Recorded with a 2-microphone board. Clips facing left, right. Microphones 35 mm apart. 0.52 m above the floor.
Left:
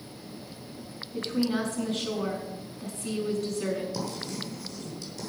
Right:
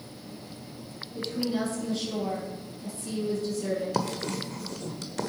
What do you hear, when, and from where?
1.1 s a woman speaking: 65° left (ahead or behind), 5.5 m
3.9 s writing: 65° right (ahead or behind), 1.5 m